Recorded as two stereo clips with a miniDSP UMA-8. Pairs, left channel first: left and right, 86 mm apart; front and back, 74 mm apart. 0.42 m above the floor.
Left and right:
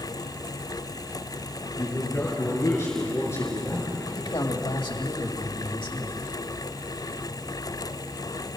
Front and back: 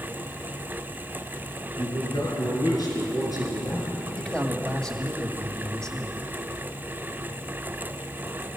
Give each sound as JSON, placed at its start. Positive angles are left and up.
{"t": 1.8, "sound": "a man speaking", "azimuth_deg": 35, "distance_m": 6.0}
{"t": 4.2, "sound": "a man speaking", "azimuth_deg": 80, "distance_m": 2.5}